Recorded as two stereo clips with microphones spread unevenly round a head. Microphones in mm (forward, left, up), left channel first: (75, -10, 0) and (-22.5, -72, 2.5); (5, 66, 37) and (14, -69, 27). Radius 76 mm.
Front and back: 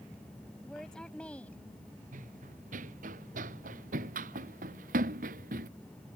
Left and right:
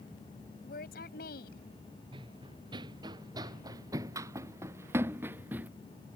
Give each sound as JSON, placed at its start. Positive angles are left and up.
{"t": 0.6, "sound": "a woman speaking", "azimuth_deg": 120}
{"t": 2.1, "sound": "running footsteps", "azimuth_deg": -145}